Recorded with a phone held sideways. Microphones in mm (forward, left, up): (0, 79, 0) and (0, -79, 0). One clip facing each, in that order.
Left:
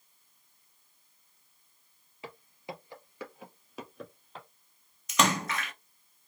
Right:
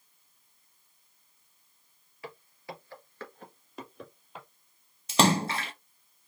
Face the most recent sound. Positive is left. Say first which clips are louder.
# right 4 dB
turn(degrees=-30)  # may be behind; listen again after turning